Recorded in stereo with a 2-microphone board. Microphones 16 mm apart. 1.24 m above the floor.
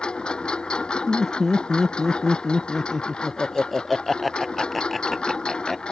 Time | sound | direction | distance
0.0 | a lawn mower | 75° left (ahead or behind) | ?
1.1 | laughter | 5° left (ahead or behind) | ?